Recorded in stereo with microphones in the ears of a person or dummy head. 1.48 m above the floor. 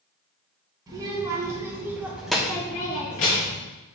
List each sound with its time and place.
0.9 s a child speaking: 20° right (ahead or behind), 1.4 m; by 3.6 s 40° left (ahead or behind), 0.7 m